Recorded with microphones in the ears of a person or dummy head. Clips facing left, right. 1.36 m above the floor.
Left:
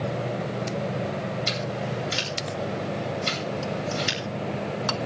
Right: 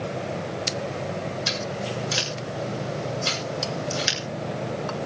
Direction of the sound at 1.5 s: 85° right.